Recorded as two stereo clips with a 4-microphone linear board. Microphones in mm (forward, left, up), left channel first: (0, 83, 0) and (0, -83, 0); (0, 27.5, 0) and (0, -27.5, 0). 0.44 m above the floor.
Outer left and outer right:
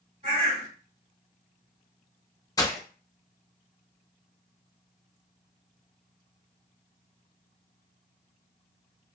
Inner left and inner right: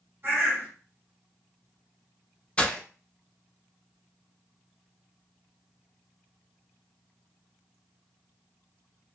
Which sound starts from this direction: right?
A bird, at 0.2 s.